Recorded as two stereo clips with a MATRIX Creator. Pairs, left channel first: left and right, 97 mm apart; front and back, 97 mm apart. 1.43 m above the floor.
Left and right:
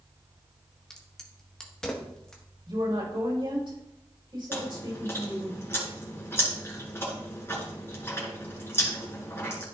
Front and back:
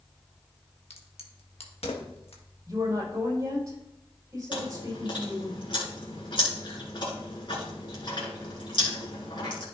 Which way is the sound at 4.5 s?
25° left.